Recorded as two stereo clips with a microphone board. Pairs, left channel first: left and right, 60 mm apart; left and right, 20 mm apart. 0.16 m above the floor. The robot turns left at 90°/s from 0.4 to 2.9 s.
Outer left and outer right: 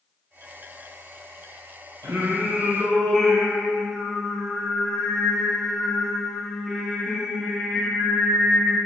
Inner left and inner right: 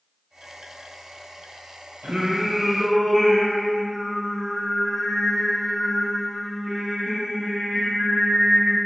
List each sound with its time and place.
2.0 s singing: 110° right, 3.5 m; by 8.8 s 175° left, 3.5 m